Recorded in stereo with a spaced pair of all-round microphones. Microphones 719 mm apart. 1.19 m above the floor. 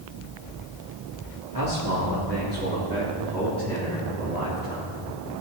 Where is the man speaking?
25° right (ahead or behind), 3 m; by 5.4 s 20° left (ahead or behind), 4 m.